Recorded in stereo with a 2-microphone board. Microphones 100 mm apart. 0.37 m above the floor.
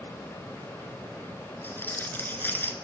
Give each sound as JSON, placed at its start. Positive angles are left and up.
{"t": 1.6, "sound": "crumpling", "side_deg": 20, "distance_m": 0.9}